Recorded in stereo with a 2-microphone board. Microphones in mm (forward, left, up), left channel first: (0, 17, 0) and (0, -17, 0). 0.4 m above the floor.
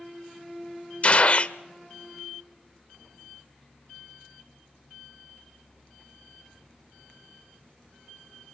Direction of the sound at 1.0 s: 40° left (ahead or behind).